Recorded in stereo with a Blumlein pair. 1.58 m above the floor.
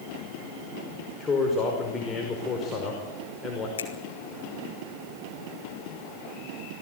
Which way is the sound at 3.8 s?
65° left.